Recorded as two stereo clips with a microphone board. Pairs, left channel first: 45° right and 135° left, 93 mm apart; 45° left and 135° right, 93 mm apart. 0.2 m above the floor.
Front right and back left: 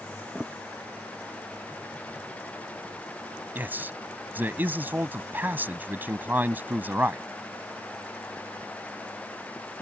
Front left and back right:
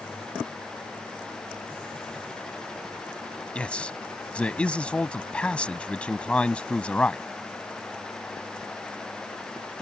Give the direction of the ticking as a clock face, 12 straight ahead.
I don't hear ticking.